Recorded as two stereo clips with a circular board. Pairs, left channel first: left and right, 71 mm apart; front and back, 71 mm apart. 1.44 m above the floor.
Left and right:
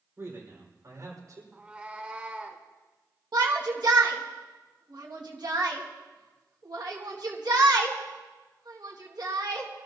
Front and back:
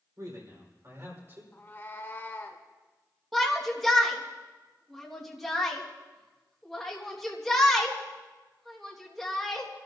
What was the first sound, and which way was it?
A man speaking, 145° right.